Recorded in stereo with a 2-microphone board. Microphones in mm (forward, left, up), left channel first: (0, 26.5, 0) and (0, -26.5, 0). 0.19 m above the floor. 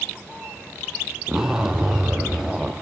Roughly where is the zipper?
Centre.